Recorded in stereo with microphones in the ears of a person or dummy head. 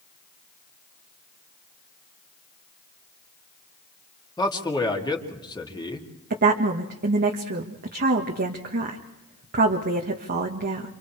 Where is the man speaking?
15° left (ahead or behind), 2.5 m.